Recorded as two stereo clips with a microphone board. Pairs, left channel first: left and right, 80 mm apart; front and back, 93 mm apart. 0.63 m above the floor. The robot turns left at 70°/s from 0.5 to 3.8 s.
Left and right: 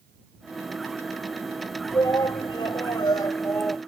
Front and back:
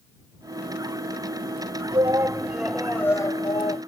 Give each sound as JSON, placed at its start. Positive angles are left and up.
{"t": 1.9, "sound": "a shout", "azimuth_deg": 145}